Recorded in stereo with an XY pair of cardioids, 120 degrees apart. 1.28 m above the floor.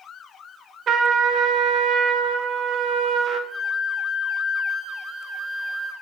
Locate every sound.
0.9 s a trumpet: 50° right, 0.7 m
3.5 s a flute: 25° right, 2.5 m